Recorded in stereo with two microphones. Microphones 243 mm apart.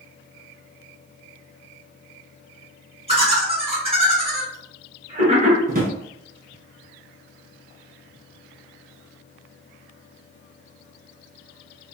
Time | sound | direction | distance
3.1 | laughter | 25° right (ahead or behind) | 1.6 m
5.7 | a drawer | 35° right (ahead or behind) | 0.7 m